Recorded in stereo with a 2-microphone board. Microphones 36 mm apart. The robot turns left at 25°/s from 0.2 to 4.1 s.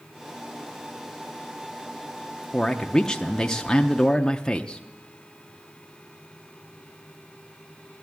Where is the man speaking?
15° left (ahead or behind), 0.6 m; by 4.8 s 20° left (ahead or behind), 0.6 m.